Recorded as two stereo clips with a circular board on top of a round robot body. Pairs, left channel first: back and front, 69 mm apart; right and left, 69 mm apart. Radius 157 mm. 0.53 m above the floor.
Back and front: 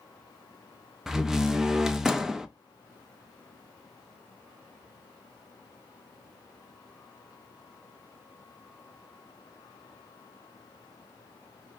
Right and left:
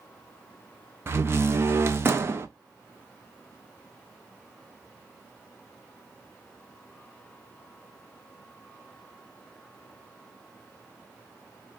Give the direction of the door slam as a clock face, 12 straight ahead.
9 o'clock.